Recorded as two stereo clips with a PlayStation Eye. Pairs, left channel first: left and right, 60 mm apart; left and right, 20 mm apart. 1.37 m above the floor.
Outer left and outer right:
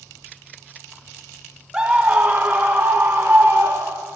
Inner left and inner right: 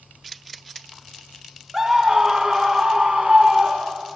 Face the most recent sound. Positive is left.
turn(degrees=-45)  # may be behind; listen again after turning